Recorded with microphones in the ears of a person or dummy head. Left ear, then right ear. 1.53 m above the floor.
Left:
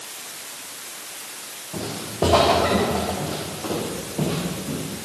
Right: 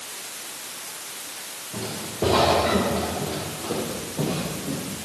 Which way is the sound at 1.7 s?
50° left (ahead or behind).